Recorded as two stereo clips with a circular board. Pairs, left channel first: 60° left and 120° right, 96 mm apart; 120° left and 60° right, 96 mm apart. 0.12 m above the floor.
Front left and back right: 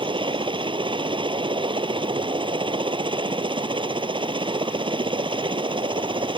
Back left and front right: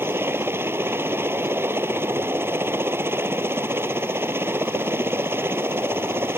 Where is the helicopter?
120° right.